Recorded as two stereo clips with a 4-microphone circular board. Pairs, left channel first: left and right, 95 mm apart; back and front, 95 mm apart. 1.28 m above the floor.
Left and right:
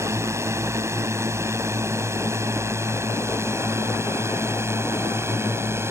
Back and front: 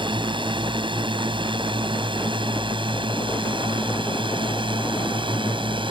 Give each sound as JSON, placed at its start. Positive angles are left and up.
{"t": 0.0, "sound": "a drone", "azimuth_deg": -30}